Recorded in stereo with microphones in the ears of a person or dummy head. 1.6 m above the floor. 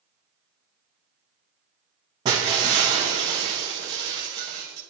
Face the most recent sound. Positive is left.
turn(degrees=-25)  # may be behind; listen again after turning